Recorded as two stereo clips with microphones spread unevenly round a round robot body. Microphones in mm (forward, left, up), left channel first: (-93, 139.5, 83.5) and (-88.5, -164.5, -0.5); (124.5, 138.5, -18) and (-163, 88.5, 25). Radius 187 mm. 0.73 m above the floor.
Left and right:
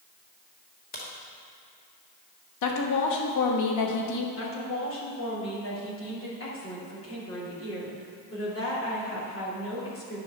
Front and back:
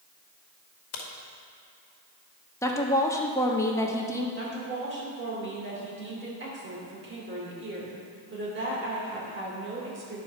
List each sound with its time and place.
0.9 s a crack: 20° left, 1.5 m
2.6 s a woman speaking: 80° left, 1.3 m
4.4 s a woman speaking: 140° left, 3 m